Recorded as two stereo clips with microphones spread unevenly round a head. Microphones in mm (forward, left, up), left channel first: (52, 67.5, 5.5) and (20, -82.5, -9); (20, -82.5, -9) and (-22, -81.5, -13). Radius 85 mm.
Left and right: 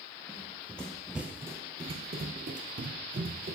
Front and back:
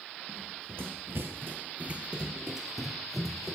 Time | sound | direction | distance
0.3 | running footsteps | 150° left | 1.8 m